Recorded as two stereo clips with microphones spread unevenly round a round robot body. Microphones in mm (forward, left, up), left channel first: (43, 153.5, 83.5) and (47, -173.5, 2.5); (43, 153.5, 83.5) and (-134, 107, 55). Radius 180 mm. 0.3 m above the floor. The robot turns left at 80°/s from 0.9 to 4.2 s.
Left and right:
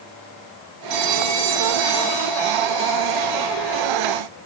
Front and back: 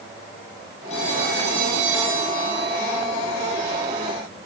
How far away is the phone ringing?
About 8.5 m.